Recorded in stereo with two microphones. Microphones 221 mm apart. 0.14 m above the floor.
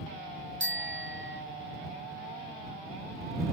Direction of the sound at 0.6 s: 60° right (ahead or behind).